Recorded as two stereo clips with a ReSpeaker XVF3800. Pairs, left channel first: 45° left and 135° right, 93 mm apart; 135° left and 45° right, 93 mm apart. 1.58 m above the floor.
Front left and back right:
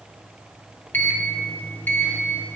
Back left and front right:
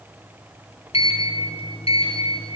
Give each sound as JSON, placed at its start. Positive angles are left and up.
{"t": 0.9, "sound": "a sliding door", "azimuth_deg": 115, "distance_m": 1.6}